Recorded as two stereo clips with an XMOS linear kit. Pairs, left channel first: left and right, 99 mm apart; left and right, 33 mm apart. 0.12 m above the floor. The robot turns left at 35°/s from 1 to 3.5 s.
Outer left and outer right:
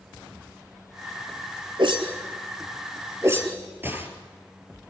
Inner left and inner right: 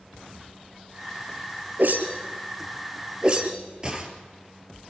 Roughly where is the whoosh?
Right.